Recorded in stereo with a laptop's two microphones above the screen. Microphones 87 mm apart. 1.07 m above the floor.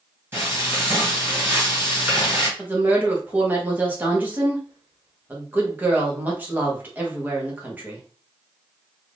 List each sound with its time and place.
0.3 s frying: 20° right (ahead or behind), 1.5 m
2.6 s a woman speaking: 20° right (ahead or behind), 0.9 m